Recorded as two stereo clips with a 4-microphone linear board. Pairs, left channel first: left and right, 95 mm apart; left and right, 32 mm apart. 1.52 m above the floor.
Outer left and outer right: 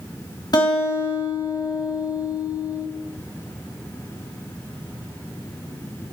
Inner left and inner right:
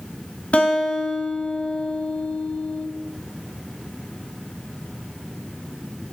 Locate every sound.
0.5 s a guitar: 45° left (ahead or behind), 2.5 m